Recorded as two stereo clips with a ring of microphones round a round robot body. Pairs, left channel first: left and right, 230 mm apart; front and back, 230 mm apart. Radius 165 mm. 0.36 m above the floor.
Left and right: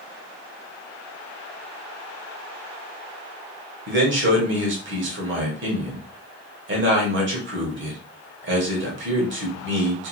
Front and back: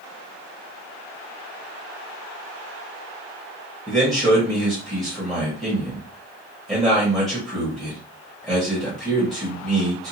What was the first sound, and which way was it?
A man speaking, 90° right.